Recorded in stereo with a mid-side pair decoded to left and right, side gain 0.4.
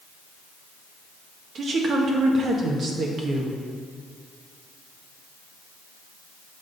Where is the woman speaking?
60° right, 1.4 m.